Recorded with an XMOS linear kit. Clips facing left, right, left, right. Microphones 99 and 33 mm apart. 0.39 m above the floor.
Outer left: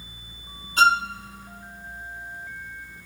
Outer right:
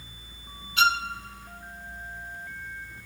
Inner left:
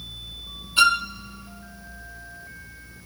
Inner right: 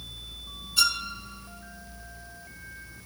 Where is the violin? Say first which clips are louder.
Outer left 5 dB, inner left 8 dB; 40° left (ahead or behind), 0.5 m.